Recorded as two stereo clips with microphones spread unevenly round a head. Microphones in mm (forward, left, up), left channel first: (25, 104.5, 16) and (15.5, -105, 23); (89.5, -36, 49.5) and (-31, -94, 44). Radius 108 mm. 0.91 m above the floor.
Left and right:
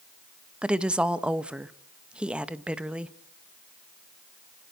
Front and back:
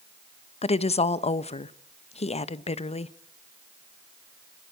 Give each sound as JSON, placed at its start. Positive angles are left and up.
{"t": 0.6, "sound": "a woman speaking", "azimuth_deg": -5, "distance_m": 0.9}